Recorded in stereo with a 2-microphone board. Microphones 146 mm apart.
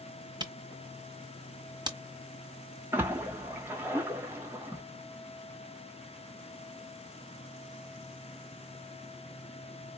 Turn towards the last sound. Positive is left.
turn(degrees=-15)  # may be behind; listen again after turning